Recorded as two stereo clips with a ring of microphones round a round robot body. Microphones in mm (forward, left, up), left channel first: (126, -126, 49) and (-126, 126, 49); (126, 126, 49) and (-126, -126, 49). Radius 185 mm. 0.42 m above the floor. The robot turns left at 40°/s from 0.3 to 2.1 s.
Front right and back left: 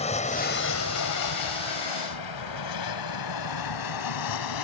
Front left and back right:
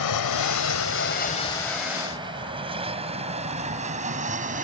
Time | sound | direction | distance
0.0 | an aircraft | 25° left | ?